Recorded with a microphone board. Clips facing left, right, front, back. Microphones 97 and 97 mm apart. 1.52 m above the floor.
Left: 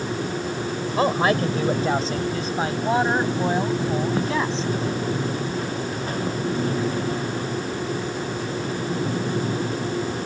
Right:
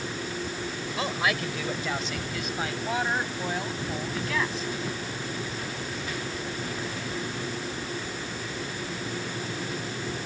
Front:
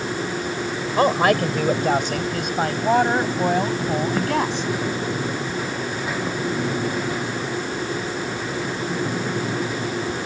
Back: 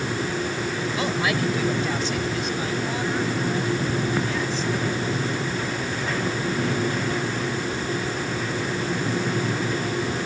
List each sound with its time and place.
1.0 s a woman speaking: 40° left; by 4.7 s 25° left